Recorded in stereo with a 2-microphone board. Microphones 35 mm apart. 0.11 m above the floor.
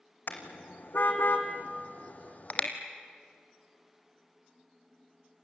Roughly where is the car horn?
Left.